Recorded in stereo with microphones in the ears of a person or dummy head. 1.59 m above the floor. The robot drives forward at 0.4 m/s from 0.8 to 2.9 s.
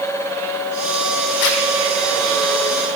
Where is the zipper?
65° left (ahead or behind), 1.0 m.